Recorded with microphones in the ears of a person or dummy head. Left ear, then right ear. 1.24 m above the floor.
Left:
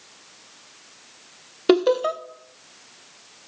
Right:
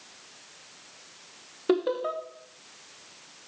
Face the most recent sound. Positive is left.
turn(degrees=80)